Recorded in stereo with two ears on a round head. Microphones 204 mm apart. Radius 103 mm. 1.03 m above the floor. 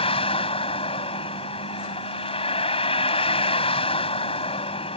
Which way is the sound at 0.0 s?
25° left (ahead or behind).